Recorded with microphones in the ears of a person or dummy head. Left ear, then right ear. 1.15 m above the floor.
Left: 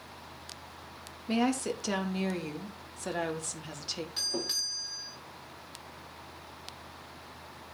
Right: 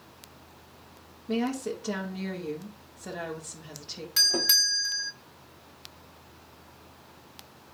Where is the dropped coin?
No dropped coin in this recording.